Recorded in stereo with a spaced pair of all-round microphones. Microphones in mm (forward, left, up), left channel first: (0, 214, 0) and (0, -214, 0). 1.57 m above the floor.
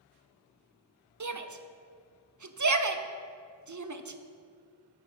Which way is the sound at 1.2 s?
45° right (ahead or behind).